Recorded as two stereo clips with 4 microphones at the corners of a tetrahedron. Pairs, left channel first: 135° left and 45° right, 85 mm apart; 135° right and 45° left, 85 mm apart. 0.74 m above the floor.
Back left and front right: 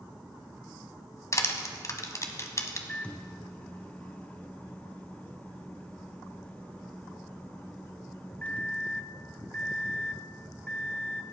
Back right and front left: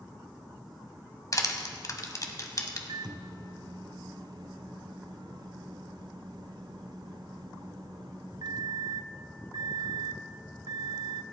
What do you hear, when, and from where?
1.3 s crushing: straight behind, 1.4 m
2.9 s a microwave: 65° left, 0.5 m